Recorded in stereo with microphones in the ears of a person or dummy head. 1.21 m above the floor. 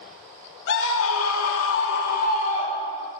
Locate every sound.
0.7 s a scream: 65° left (ahead or behind), 1.2 m; by 3.1 s 20° left (ahead or behind), 1.6 m